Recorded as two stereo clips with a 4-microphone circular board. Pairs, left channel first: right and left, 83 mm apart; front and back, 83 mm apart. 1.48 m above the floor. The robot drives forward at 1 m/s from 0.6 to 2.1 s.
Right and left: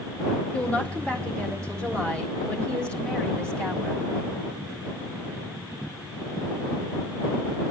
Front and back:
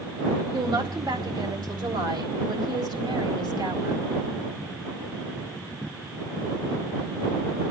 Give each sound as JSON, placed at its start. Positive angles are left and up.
{"t": 0.5, "sound": "a woman speaking", "azimuth_deg": -160, "distance_m": 2.5}